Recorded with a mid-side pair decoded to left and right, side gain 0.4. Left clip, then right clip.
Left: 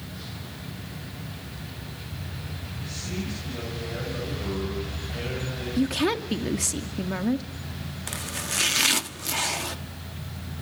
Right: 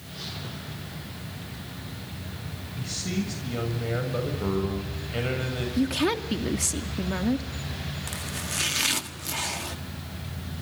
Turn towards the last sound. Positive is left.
turn(degrees=30)